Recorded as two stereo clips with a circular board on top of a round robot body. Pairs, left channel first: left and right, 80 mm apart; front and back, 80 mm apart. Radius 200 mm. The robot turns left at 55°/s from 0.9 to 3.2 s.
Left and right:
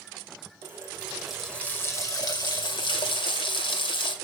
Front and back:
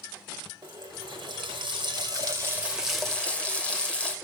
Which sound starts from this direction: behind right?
A running tap, at 0.6 s.